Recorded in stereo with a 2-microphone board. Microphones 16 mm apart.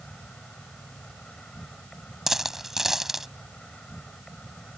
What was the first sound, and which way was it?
An insect, 60° left (ahead or behind).